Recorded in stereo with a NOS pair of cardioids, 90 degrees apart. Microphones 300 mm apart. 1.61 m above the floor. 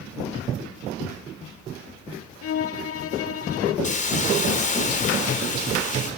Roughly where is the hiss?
Ahead left.